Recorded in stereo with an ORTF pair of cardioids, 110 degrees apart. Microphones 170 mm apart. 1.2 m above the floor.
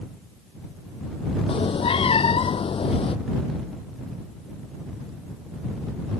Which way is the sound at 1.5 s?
35° left.